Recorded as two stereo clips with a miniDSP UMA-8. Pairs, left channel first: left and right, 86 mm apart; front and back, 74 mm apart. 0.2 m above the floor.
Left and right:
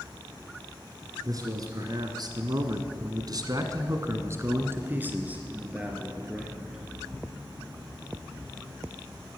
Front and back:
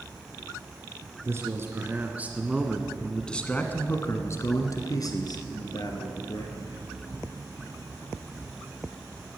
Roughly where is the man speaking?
Behind right.